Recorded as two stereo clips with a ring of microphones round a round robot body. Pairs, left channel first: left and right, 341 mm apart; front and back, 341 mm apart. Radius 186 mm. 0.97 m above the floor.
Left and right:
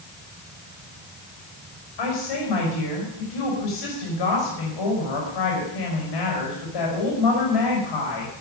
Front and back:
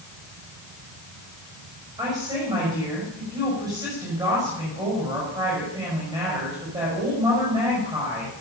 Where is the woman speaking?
100° left, 5.5 m.